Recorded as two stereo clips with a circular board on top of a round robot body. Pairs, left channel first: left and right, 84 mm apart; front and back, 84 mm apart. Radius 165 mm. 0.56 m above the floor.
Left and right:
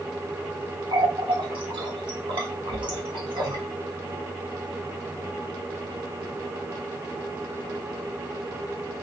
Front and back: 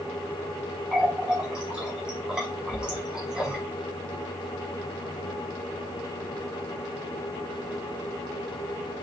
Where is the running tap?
100° right, 1.2 m.